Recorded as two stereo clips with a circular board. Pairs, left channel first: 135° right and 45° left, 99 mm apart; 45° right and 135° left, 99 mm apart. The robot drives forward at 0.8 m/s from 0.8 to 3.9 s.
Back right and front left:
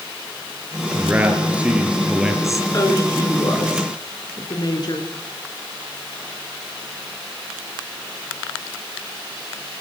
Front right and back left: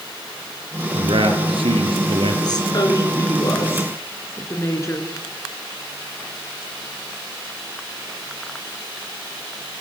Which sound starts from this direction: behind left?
A man speaking, at 0.9 s.